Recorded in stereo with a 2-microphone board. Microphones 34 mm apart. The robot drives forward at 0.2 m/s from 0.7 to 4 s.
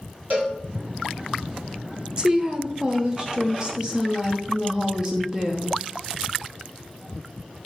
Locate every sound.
0.3 s a cowbell: 80° right, 2.0 m
2.2 s a woman speaking: 25° right (ahead or behind), 0.5 m; by 5.8 s 20° right (ahead or behind), 0.7 m